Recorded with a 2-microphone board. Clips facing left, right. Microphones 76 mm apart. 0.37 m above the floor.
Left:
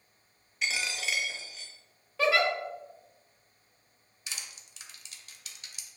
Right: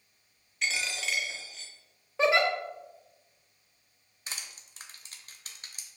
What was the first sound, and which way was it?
A dropped coin, 5° left (ahead or behind).